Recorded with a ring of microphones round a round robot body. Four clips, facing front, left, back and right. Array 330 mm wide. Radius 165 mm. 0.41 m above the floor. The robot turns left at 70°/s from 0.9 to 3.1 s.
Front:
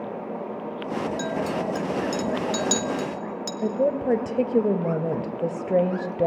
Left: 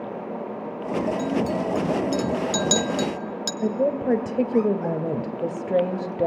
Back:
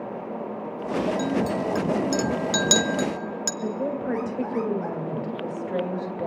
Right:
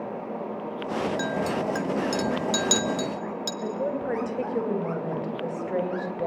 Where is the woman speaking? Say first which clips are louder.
Left 7 dB, front 6 dB; 45° left, 2.5 m.